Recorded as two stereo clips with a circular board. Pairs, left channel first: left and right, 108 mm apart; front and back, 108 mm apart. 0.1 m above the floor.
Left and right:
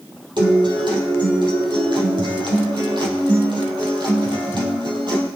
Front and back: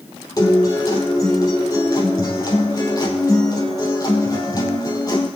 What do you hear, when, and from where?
0.4 s a guitar: 50° right, 3.5 m